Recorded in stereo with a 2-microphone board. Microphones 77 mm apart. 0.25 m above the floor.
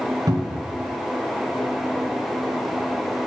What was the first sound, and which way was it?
A cupboard door, 55° right (ahead or behind).